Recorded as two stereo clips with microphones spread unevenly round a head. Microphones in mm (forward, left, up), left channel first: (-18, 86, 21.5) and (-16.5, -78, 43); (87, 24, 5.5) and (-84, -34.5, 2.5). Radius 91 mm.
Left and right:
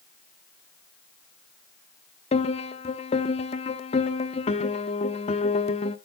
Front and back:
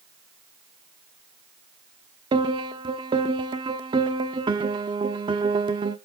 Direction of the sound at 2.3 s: 140° left.